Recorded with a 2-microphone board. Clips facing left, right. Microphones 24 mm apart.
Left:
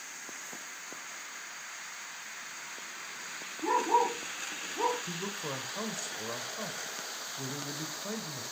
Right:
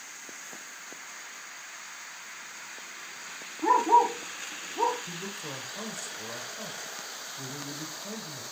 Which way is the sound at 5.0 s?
25° left (ahead or behind).